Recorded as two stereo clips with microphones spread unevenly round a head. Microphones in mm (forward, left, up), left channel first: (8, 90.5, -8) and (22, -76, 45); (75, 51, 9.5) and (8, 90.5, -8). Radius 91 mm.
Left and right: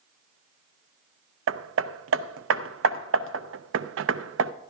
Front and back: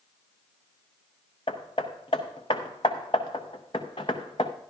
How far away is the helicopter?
I don't hear a helicopter.